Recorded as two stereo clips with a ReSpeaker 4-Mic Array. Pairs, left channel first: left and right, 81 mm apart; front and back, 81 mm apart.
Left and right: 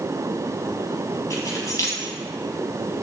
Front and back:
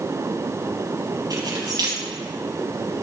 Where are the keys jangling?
140° left, 3.5 m.